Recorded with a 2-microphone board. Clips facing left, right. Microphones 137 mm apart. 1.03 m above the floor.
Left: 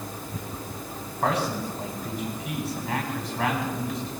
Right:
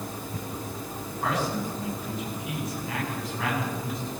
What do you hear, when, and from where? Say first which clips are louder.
1.2 s a man speaking: left 2 dB; 85° left, 9.5 m